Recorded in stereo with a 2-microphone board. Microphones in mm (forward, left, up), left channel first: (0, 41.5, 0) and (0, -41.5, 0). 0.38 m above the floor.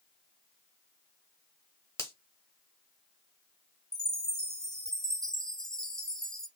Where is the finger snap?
35° left (ahead or behind), 1.2 m.